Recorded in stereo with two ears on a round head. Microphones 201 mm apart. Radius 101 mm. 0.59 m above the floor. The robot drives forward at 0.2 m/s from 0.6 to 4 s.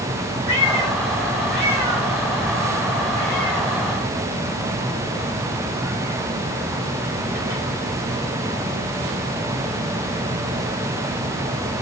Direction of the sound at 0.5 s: 50° right (ahead or behind).